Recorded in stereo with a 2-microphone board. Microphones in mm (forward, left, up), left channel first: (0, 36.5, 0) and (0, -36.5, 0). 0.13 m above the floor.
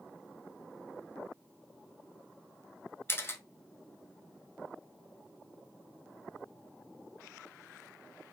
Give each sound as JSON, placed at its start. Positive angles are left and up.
{"t": 3.1, "sound": "a camera shutter", "side_deg": 35, "distance_m": 0.6}